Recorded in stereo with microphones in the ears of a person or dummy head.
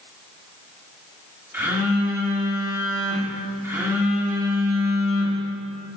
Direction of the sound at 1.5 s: 10° right (ahead or behind).